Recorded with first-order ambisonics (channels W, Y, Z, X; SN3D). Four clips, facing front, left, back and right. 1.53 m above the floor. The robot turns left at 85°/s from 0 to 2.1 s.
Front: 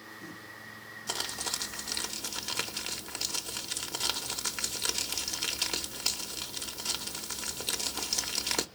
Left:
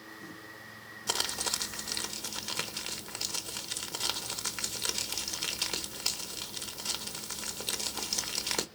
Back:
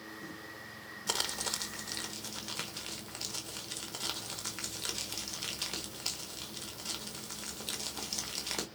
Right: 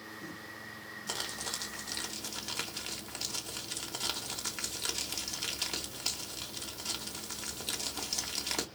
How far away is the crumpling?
About 0.7 m.